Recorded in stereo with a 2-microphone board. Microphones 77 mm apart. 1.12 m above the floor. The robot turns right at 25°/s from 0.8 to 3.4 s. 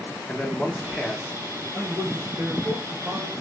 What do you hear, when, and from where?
0.3 s a man speaking: 5° left (ahead or behind), 0.8 m; by 1.6 s 15° right (ahead or behind), 0.8 m
1.7 s a man speaking: 160° right, 2 m; by 3.3 s 120° right, 2 m